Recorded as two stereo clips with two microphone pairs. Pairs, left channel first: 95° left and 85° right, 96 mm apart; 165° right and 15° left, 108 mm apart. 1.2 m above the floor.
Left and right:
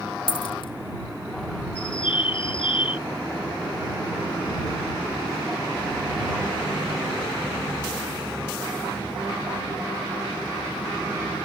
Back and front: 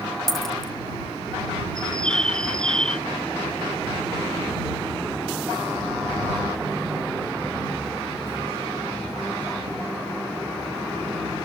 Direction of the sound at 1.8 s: 110° left.